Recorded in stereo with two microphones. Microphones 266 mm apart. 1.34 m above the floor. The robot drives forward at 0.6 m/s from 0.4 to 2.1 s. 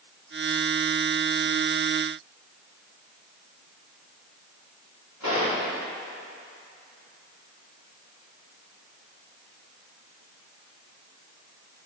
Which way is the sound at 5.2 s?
85° left.